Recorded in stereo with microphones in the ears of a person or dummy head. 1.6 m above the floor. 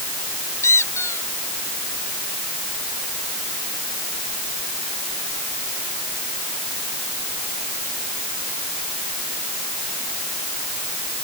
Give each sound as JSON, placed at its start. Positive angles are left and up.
{"t": 0.6, "sound": "a squeak", "side_deg": 10}